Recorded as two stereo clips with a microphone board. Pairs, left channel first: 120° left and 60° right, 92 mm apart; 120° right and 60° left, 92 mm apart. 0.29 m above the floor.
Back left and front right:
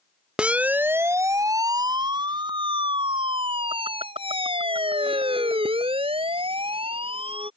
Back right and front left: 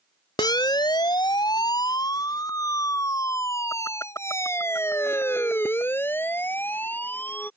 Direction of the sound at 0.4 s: 135° right.